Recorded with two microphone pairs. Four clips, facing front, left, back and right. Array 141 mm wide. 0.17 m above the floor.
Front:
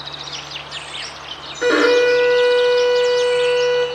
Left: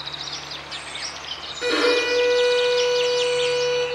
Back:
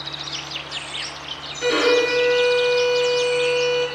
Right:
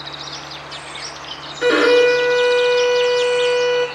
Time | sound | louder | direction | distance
1.6 | a violin | right 8 dB, front 5 dB | 45° right | 2.5 m